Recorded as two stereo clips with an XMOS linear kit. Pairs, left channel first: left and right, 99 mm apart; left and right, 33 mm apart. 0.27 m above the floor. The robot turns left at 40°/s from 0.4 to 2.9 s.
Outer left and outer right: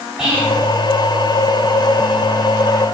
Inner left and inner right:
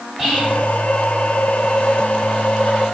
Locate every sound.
0.2 s whispering: 5° right (ahead or behind), 2.0 m; by 0.6 s centre (ahead or behind), 2.0 m